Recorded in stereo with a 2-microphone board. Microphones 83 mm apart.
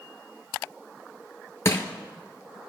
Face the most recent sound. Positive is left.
turn(degrees=35)  # may be behind; listen again after turning